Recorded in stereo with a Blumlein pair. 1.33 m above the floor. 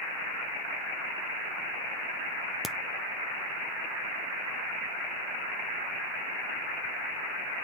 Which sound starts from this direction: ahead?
A crack, at 2.6 s.